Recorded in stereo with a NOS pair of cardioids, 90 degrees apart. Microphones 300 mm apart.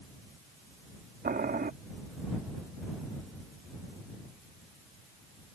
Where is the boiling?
30° right.